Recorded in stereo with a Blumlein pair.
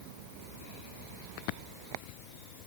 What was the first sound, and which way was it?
Only background noise.